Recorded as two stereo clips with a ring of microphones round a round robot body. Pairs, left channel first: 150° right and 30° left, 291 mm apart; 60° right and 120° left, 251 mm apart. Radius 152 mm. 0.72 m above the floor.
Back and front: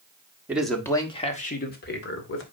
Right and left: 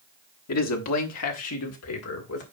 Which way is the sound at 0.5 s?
55° right.